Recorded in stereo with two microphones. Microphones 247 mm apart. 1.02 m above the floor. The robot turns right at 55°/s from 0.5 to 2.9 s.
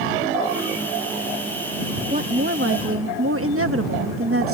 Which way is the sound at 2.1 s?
145° right.